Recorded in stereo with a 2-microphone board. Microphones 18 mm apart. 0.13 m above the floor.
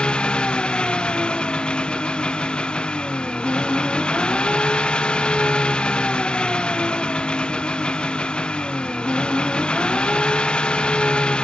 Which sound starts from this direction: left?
An engine running, at 0.0 s.